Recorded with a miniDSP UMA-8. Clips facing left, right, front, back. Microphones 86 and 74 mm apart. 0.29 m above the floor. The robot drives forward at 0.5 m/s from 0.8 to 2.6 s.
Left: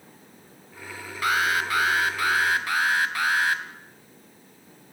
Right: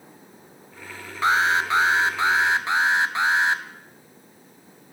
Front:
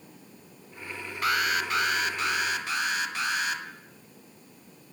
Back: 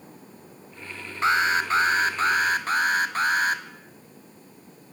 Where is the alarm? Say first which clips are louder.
Right 4 dB, back 5 dB; 135° right, 2 m; by 3.6 s 150° right, 2.5 m.